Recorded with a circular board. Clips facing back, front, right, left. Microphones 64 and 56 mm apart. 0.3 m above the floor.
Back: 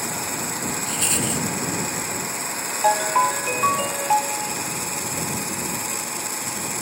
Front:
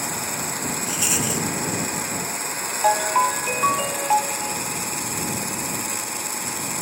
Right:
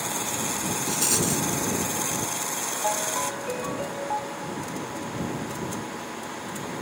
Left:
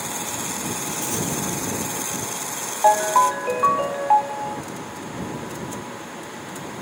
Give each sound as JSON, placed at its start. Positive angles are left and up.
{"t": 0.9, "sound": "a rattle", "azimuth_deg": -80}
{"t": 2.8, "sound": "a ringtone", "azimuth_deg": 90}